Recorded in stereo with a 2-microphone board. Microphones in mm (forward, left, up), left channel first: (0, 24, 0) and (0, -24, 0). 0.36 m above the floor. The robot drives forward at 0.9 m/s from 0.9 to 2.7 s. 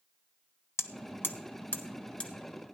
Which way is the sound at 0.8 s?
70° left (ahead or behind).